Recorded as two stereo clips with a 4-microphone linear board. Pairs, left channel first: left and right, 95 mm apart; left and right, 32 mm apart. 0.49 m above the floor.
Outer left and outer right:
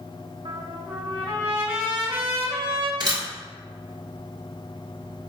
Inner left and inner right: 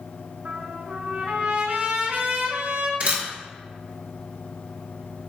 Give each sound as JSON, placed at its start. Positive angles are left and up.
{"t": 0.5, "sound": "a trumpet", "side_deg": -80, "distance_m": 0.9}
{"t": 3.0, "sound": "a camera shutter", "side_deg": -50, "distance_m": 0.9}